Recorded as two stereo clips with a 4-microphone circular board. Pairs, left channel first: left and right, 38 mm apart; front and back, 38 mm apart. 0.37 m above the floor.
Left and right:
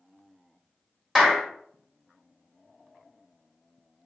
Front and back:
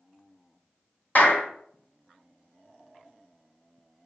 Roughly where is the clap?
Ahead.